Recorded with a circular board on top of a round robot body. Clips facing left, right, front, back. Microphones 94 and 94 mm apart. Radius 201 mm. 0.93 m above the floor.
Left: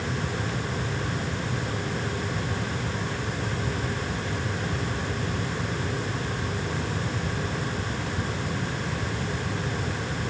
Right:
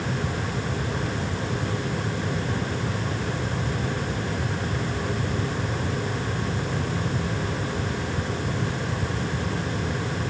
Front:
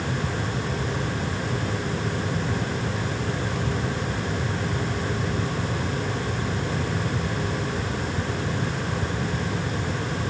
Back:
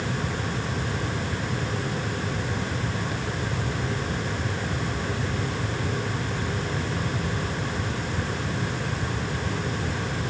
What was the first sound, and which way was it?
Only background noise.